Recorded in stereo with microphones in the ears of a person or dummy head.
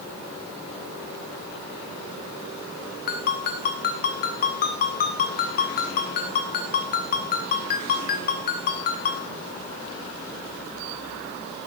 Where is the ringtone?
45° left (ahead or behind), 1.6 m.